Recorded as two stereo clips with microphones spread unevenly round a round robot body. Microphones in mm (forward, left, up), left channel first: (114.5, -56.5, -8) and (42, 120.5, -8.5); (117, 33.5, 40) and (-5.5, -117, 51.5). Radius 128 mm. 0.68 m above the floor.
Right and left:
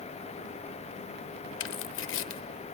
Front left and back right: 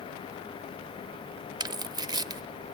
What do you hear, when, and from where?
1.6 s tearing paper: 55° right, 0.6 m